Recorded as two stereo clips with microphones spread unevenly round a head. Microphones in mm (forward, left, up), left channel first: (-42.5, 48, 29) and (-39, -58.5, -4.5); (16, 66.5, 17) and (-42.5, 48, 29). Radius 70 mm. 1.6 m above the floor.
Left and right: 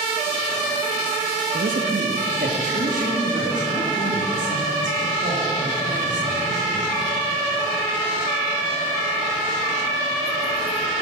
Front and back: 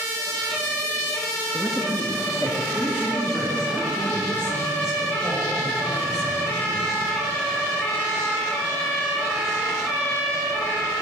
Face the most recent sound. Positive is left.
turn(degrees=-50)